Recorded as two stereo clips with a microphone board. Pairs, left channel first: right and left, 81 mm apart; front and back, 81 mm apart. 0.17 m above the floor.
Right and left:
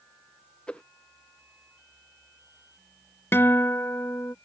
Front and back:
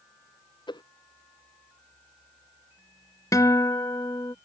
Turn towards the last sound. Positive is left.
turn(degrees=-35)